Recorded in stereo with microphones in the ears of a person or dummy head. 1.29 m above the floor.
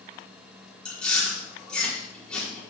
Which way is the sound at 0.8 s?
10° left (ahead or behind).